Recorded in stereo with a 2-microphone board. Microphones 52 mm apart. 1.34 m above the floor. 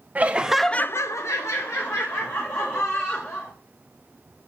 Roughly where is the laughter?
Right.